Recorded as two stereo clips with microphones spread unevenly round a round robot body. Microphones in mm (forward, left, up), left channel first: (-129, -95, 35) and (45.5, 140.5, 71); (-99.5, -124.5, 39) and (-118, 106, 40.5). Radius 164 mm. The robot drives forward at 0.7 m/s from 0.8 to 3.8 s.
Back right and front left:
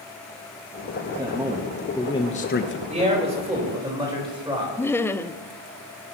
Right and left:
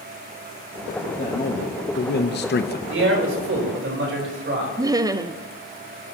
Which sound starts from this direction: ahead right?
A man speaking, at 1.1 s.